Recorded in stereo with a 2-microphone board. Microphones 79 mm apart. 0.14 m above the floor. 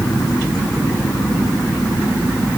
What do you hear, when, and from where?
Only background noise.